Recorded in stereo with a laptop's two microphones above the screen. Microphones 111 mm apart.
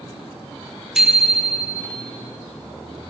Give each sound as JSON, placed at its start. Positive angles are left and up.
{"t": 0.9, "sound": "a bicycle bell", "side_deg": -5, "distance_m": 2.0}